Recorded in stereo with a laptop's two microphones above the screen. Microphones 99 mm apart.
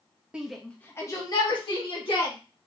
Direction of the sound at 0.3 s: 10° right (ahead or behind).